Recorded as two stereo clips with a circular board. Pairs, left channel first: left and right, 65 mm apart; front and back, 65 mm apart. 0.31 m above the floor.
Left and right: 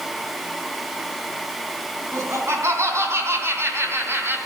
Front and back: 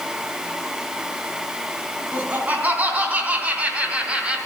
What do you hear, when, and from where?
2.1 s laughter: 120° right, 3.5 m; by 4.4 s 115° right, 2 m